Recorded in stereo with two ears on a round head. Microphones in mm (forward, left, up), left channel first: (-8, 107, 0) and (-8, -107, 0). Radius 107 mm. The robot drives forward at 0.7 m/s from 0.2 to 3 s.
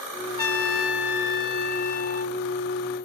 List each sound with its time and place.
0.4 s a trumpet: 65° left (ahead or behind); by 2.4 s 35° left (ahead or behind)